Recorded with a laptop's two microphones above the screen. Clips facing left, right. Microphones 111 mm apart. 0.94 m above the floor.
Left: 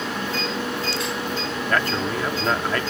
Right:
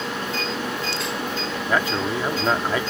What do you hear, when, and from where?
1.7 s a man speaking: 10° right (ahead or behind)